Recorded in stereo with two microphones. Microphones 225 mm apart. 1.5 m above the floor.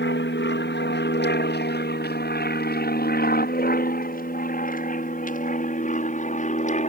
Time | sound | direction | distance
0.0 | an aircraft | 55° left (ahead or behind) | ?